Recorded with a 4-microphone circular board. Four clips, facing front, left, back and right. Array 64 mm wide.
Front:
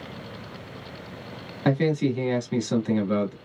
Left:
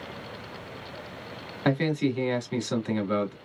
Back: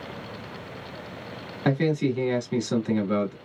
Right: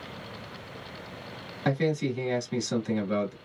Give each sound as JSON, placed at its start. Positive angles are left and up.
{"t": 1.6, "sound": "a man speaking", "azimuth_deg": 80, "distance_m": 1.1}